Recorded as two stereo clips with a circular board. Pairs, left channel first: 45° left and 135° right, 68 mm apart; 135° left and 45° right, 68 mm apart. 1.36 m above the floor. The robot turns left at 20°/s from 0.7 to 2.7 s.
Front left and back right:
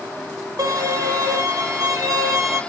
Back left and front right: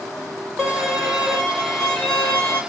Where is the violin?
125° right, 2.5 m; by 2.6 s 165° right, 2.5 m.